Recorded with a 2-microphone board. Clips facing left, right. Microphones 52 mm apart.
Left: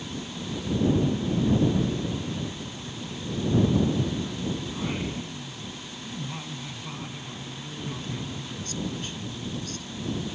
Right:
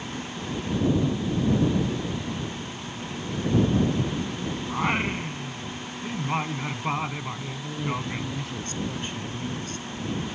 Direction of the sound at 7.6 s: 35° right (ahead or behind).